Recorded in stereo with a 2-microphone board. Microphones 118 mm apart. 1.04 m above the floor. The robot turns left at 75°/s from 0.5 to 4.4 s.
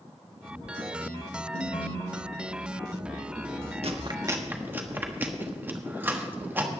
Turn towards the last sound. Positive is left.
turn(degrees=-15)  # may be behind; listen again after turning